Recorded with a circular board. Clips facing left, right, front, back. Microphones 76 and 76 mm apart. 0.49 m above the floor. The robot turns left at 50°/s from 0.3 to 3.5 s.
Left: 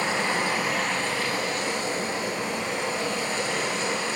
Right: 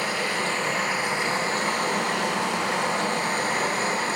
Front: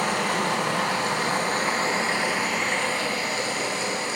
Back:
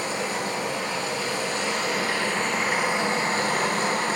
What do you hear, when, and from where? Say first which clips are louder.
0.0 s running water: left 1 dB, front 4 dB; 25° left, 4 m; by 4.2 s 135° right, 4 m